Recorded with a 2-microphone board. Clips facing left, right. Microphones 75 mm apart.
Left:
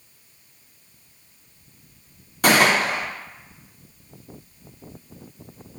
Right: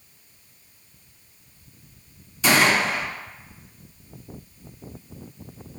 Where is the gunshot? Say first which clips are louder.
Left 2 dB; 55° left (ahead or behind), 0.6 m.